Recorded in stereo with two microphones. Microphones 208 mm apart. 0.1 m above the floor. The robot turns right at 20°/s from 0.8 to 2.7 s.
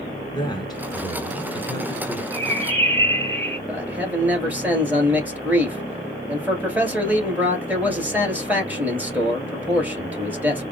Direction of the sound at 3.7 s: 10° right (ahead or behind).